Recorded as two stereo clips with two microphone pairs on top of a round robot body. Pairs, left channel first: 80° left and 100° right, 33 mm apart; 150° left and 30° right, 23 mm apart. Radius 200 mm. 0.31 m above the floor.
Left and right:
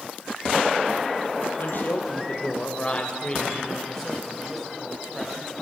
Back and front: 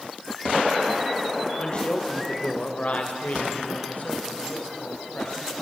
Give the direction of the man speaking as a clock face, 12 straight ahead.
9 o'clock.